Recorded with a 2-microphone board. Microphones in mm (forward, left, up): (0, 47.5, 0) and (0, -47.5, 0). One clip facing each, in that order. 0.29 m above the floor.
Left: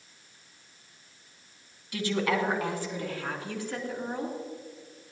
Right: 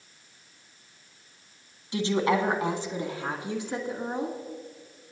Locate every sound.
1.9 s a woman speaking: 25° right (ahead or behind), 2.5 m; by 4.3 s 20° right (ahead or behind), 3.5 m